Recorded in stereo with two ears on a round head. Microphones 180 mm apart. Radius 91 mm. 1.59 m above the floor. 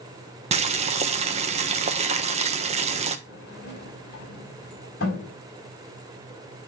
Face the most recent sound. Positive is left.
turn(degrees=50)  # may be behind; listen again after turning